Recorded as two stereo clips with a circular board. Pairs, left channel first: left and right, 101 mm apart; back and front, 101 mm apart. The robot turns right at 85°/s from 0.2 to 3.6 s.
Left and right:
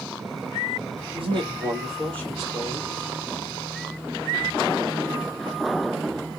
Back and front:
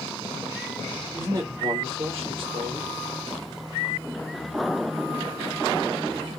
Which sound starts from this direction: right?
A man speaking, at 1.1 s.